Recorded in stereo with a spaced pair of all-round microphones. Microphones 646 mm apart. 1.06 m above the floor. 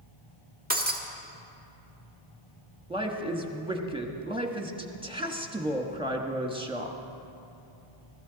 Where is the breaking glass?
15° right (ahead or behind), 1.4 m.